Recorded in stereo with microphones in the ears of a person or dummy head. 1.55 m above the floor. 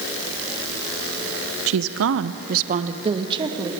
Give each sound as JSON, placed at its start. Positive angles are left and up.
{"t": 1.7, "sound": "a woman speaking", "side_deg": -70, "distance_m": 1.2}